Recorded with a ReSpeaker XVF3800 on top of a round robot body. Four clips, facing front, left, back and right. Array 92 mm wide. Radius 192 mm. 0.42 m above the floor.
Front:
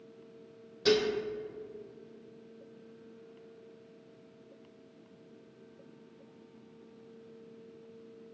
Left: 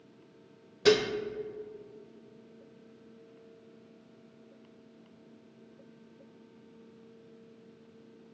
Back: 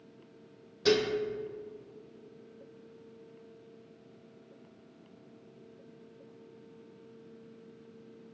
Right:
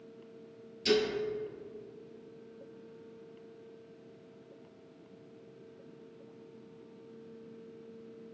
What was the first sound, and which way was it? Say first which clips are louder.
Dishes clattering: left 4 dB, even; 95° left.